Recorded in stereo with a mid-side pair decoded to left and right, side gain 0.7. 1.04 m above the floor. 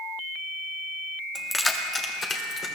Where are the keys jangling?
Straight ahead, 1.3 m; by 2.7 s 35° left, 3 m.